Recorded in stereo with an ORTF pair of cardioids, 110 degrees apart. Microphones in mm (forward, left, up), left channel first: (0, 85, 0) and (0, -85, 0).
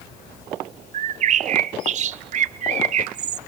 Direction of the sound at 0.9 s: 45° right.